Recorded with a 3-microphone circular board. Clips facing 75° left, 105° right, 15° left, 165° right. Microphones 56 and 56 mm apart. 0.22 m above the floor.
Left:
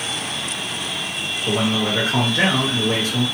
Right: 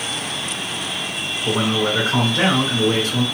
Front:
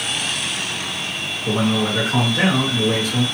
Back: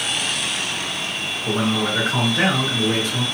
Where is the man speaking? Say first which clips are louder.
Right 1 dB, front 2 dB; 65° right, 1.6 m.